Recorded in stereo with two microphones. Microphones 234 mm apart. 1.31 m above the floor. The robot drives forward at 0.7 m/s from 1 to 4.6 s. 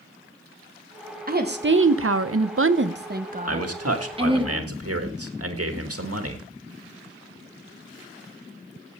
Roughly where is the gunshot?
No gunshot in this recording.